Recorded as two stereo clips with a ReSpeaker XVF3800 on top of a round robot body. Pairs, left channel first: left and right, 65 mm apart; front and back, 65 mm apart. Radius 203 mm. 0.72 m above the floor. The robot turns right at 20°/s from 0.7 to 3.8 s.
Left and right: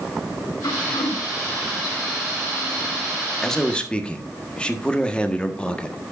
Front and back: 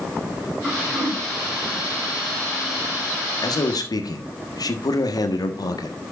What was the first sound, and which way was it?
Throat clearing, 80° left.